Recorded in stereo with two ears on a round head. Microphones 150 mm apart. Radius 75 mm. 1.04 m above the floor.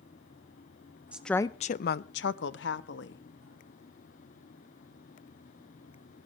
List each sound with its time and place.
1.1 s a woman speaking: 10° right (ahead or behind), 0.5 m; by 3.2 s 75° left (ahead or behind), 1.5 m